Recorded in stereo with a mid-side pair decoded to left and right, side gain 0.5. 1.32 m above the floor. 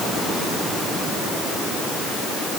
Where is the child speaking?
I don't hear a child speaking.